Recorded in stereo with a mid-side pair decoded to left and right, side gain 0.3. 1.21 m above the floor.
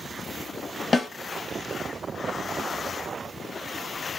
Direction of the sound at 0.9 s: 45° left.